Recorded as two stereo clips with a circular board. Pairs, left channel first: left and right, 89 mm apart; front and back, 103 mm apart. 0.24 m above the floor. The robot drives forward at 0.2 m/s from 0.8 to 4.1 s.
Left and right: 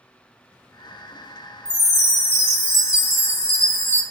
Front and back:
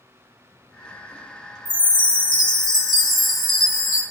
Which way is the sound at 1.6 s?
60° left.